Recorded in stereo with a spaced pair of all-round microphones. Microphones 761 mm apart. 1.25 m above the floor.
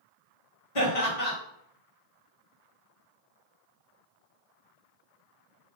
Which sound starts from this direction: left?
Laughter, at 0.8 s.